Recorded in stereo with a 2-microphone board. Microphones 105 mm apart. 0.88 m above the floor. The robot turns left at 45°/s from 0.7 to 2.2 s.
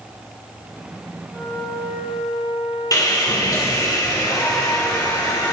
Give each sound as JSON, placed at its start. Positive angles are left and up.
{"t": 1.3, "sound": "a flute", "azimuth_deg": 155, "distance_m": 3.0}
{"t": 2.9, "sound": "sawing", "side_deg": 40, "distance_m": 2.5}